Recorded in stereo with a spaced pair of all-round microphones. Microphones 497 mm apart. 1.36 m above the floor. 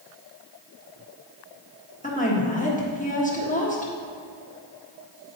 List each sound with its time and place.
2.0 s a woman speaking: 15° left (ahead or behind), 1.4 m